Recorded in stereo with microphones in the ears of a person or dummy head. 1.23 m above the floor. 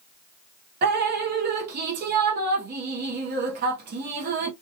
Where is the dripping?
55° right (ahead or behind), 0.7 m.